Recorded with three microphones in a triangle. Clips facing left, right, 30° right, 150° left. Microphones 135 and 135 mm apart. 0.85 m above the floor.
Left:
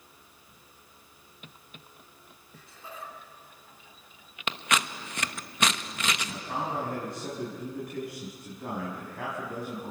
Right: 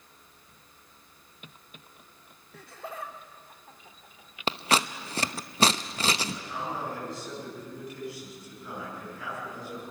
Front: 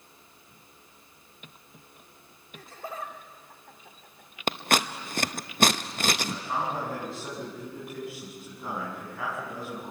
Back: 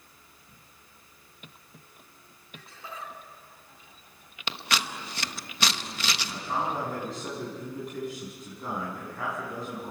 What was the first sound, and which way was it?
Laughter, 75° right.